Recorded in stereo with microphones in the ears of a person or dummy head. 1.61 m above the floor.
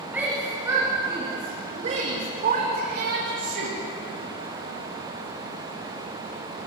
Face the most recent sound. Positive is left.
turn(degrees=-60)  # may be behind; listen again after turning